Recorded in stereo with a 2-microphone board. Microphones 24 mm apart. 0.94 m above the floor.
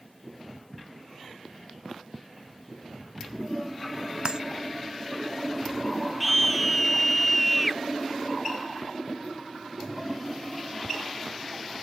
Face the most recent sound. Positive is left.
turn(degrees=0)  # may be behind; listen again after turning